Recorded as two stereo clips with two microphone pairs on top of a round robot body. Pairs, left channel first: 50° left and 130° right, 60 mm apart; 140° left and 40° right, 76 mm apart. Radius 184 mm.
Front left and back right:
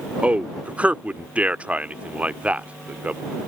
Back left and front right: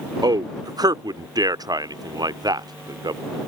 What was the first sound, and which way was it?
A man speaking, 65° right.